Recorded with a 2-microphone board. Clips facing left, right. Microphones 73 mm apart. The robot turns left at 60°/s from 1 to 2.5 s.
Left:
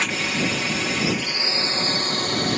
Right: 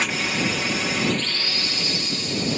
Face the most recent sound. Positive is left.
turn(degrees=90)